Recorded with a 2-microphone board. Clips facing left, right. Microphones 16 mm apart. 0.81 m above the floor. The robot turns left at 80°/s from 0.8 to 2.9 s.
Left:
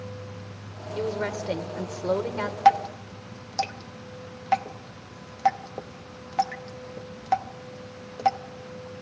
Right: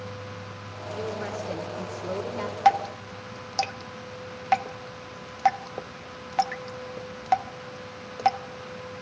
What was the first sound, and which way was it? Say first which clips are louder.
A woman speaking: left 4 dB; 145° left.